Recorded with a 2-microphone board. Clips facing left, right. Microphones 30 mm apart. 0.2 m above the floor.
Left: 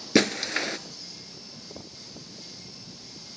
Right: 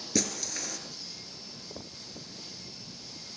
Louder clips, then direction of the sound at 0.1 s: Left 10 dB; 50° left (ahead or behind).